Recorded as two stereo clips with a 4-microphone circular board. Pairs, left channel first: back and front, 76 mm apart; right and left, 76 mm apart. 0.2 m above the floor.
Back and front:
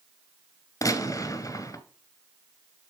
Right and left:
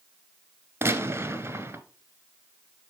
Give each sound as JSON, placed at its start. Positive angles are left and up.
{"t": 0.8, "sound": "a gunshot", "azimuth_deg": 150, "distance_m": 1.2}